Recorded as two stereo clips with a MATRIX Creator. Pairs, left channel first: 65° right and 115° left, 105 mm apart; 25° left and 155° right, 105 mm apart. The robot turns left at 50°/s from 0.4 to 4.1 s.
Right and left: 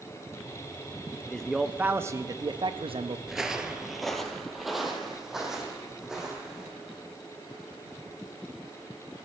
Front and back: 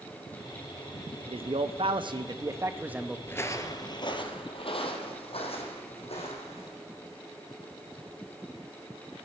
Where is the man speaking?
145° right, 0.8 m; by 3.2 s 120° left, 0.8 m.